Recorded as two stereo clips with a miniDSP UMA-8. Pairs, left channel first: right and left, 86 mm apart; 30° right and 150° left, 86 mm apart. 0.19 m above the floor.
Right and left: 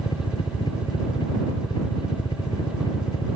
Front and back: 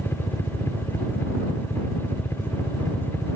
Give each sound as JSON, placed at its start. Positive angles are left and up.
{"t": 0.0, "sound": "a helicopter", "azimuth_deg": -90}